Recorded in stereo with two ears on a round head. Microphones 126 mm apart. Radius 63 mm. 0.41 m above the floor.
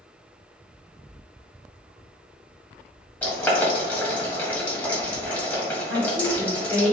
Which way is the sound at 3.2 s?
10° left (ahead or behind).